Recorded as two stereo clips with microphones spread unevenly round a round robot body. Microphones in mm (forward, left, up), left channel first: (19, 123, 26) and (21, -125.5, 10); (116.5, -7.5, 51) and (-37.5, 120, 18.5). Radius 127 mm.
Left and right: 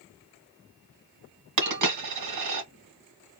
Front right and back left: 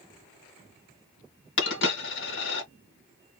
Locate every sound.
1.6 s a dropped coin: 85° right, 1.9 m